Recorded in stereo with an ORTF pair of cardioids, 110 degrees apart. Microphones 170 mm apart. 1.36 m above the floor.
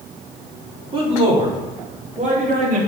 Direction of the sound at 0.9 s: 30° right.